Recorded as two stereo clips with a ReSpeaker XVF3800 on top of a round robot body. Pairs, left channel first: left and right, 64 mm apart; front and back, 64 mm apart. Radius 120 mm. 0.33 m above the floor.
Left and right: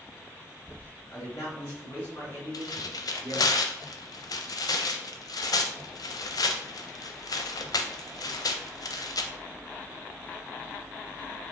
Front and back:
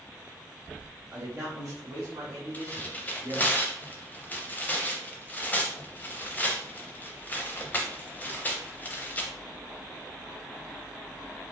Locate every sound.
1.1 s a man speaking: 125° left, 2 m; by 3.5 s 150° left, 3.5 m
2.5 s tearing paper: 65° left, 0.5 m